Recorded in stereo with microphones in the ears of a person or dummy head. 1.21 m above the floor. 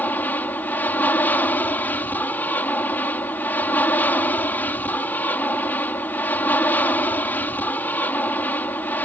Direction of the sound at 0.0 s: 15° left (ahead or behind).